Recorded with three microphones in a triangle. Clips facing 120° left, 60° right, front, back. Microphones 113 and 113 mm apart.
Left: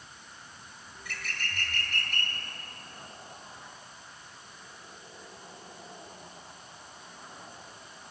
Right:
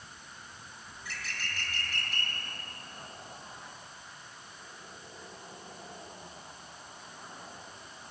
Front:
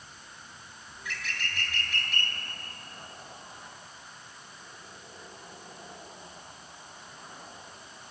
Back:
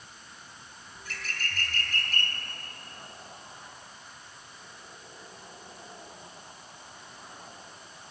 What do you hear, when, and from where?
0.9 s a bird: 135° left, 3 m